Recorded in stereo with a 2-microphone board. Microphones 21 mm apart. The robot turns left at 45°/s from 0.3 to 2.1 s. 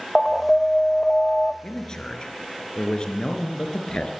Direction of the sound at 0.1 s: 170° left.